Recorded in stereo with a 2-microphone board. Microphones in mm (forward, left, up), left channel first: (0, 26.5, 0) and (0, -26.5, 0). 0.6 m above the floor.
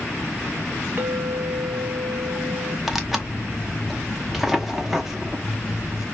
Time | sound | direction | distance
1.0 | a clink | 40° right (ahead or behind) | 1.1 m
2.9 | tearing paper | 5° right (ahead or behind) | 0.7 m